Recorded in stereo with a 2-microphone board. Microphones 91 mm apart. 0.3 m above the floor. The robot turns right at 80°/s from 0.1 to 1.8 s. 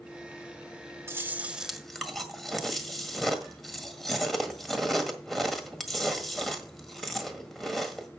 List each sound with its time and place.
1.1 s chewing: 55° right, 1.7 m; by 8.1 s 5° left, 1.7 m